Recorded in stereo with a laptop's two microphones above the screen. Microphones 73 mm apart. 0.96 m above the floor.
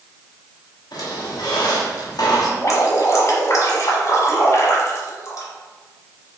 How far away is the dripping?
About 1.1 m.